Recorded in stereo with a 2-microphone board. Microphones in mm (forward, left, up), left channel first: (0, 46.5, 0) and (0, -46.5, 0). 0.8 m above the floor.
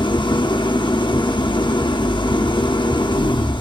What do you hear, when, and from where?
0.0 s an engine running: 55° left (ahead or behind), 0.8 m